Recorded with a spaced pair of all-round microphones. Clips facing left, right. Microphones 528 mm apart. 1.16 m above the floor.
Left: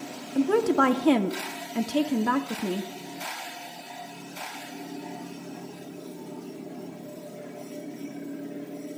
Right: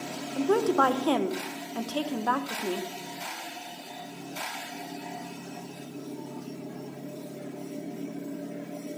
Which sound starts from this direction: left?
A woman speaking, at 0.3 s.